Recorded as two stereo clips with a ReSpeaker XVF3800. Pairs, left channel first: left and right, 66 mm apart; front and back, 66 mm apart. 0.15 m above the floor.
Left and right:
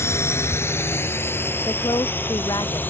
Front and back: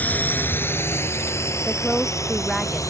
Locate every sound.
0.0 s a drone: 60° left; by 2.9 s 30° left
1.6 s a woman speaking: 85° left